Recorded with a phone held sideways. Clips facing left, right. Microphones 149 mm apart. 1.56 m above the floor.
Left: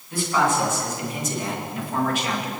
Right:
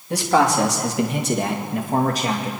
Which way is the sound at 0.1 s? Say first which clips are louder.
Right 4 dB; 80° right.